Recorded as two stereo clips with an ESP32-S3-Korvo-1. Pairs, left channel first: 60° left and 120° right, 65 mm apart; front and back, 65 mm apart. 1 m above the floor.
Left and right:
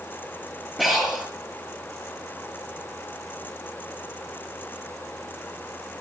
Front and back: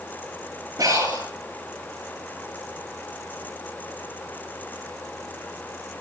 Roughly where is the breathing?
Behind left.